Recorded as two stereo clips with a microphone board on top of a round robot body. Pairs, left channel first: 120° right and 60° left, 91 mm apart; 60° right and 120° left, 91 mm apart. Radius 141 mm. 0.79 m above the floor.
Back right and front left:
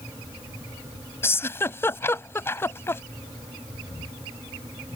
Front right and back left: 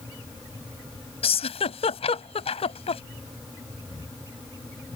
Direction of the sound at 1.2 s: 55° right.